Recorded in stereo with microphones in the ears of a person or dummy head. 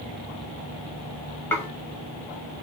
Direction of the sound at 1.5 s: 10° left (ahead or behind).